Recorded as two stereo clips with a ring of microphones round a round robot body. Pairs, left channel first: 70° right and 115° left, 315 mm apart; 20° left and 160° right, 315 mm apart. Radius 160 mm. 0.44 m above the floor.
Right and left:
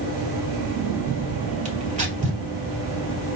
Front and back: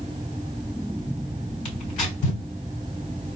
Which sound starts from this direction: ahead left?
Tearing paper, at 1.6 s.